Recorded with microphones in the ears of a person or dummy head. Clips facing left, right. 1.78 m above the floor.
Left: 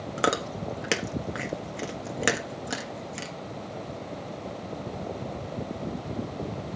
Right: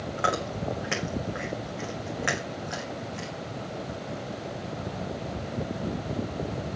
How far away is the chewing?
About 1.3 m.